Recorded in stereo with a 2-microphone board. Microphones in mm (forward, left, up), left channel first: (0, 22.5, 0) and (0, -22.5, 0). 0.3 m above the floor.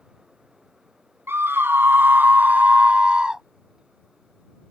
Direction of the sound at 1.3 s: 65° right (ahead or behind).